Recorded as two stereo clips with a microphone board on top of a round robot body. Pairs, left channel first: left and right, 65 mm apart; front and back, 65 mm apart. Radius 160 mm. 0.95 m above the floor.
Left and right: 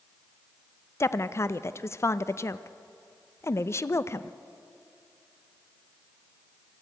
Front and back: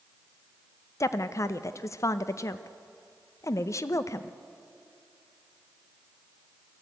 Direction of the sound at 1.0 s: 40° left.